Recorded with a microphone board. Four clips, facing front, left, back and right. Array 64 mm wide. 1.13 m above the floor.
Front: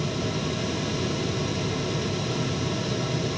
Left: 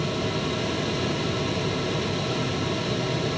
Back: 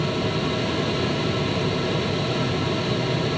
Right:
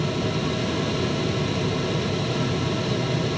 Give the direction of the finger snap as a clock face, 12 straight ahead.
I don't hear a finger snap.